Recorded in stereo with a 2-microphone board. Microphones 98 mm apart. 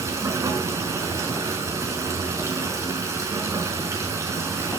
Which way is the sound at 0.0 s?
30° right (ahead or behind).